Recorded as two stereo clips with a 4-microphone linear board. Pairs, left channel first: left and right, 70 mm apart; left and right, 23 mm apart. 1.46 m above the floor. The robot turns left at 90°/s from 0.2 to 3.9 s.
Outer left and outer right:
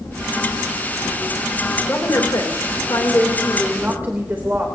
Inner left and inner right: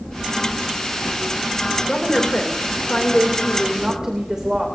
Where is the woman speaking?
155° left, 2.5 m; by 4.7 s 30° right, 2.5 m.